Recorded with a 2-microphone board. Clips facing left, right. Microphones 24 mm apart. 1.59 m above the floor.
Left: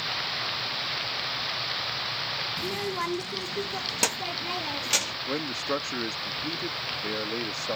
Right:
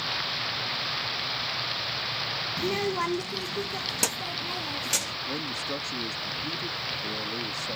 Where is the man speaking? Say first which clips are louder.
Left 2 dB; 40° left (ahead or behind).